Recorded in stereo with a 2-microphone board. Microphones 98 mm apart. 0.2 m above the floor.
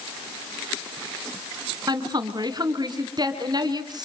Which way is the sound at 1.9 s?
40° right (ahead or behind).